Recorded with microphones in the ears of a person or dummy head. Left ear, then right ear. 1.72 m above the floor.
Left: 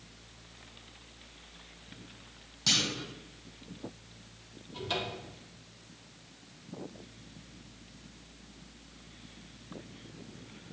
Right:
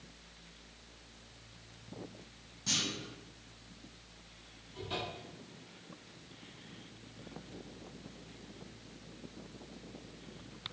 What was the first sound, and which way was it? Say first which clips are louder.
A clunk: left 6 dB; 40° left (ahead or behind).